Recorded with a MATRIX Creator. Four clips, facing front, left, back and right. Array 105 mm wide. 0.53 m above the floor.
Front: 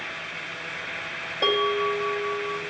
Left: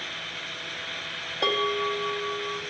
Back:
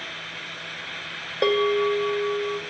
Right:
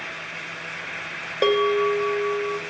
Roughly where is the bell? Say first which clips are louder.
Right 7 dB, back 3 dB; behind right.